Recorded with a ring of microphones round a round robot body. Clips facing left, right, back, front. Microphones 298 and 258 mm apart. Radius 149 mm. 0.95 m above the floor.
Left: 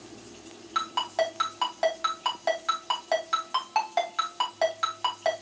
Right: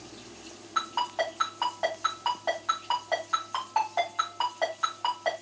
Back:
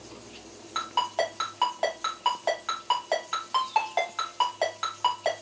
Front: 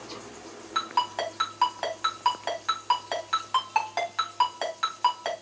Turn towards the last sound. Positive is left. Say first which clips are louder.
# left 4 dB, back 4 dB
turn(degrees=55)